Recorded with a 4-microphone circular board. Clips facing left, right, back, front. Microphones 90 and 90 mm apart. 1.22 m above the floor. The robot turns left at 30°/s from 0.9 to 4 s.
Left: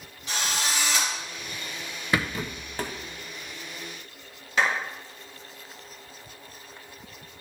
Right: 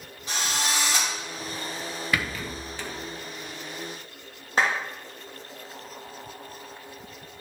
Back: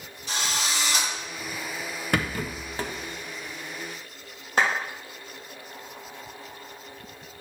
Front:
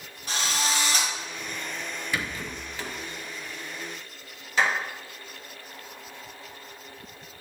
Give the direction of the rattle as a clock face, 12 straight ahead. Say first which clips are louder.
Left 3 dB, back 6 dB; 7 o'clock.